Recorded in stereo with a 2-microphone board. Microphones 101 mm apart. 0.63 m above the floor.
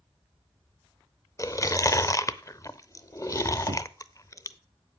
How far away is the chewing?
About 0.7 m.